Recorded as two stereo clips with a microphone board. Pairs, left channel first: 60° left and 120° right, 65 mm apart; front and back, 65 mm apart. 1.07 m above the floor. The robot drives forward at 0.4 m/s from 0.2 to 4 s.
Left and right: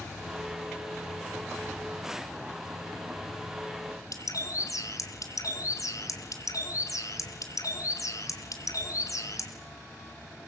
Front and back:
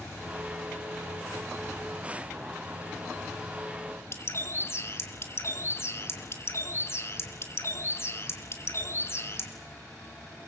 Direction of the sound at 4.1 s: 40° left.